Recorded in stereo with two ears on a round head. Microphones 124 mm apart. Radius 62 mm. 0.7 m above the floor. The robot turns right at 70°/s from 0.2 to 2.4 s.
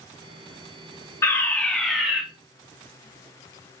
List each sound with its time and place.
1.2 s a fire alarm: 20° left (ahead or behind), 1.5 m; by 2.2 s 5° right (ahead or behind), 1.5 m